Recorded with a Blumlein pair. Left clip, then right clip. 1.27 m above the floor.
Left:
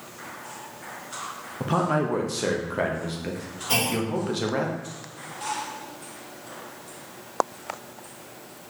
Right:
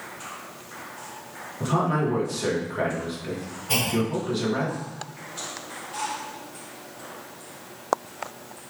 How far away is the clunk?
About 2 m.